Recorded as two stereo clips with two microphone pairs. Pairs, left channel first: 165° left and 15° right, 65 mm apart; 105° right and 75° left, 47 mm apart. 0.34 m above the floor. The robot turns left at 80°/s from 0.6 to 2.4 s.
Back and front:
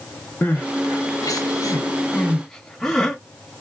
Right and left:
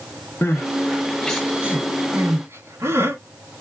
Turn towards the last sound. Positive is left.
turn(degrees=80)